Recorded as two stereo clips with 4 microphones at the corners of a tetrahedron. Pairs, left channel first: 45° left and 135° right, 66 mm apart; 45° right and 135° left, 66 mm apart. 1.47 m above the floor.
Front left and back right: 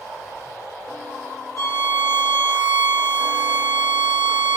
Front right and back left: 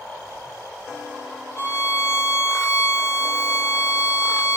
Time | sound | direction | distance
1.6 | a violin | straight ahead | 1.3 m